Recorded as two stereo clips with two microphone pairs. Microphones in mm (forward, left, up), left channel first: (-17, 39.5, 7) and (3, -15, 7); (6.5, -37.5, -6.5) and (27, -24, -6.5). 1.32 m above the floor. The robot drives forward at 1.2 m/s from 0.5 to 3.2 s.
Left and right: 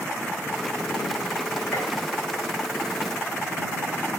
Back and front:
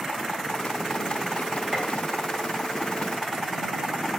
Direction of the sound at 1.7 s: 90° left.